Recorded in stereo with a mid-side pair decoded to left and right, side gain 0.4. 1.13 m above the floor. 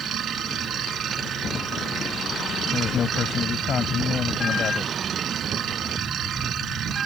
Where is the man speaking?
55° left.